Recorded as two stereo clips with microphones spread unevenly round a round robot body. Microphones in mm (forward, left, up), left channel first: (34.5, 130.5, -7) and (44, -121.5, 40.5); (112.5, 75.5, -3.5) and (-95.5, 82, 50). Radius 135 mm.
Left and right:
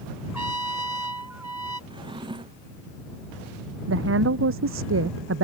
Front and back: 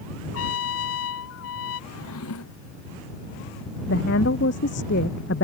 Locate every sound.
0.3 s a trumpet: 5° right
1.9 s a drawer: 15° right
3.9 s a woman speaking: 50° right